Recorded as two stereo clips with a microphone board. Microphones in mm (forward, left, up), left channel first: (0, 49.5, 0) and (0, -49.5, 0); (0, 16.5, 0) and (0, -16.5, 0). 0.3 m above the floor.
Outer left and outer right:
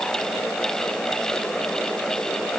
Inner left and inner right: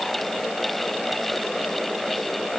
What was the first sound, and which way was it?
Only background noise.